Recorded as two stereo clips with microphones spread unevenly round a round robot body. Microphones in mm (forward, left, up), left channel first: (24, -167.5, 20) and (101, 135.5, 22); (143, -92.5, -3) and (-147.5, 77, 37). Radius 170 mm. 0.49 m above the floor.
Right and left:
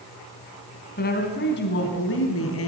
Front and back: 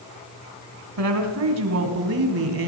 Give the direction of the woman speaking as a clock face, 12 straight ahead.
6 o'clock.